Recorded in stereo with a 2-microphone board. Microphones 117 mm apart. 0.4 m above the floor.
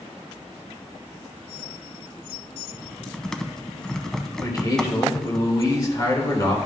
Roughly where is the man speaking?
Left.